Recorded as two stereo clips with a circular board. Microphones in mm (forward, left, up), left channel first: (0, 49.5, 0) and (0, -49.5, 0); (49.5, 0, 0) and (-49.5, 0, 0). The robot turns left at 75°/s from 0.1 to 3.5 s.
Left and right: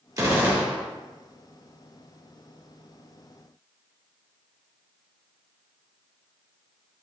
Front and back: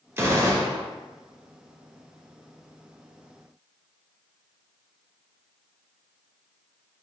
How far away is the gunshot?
About 0.7 m.